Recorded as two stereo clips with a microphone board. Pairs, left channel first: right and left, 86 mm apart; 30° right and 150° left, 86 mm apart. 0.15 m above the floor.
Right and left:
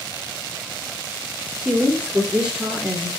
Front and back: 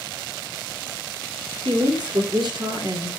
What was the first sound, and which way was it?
A woman speaking, 160° left.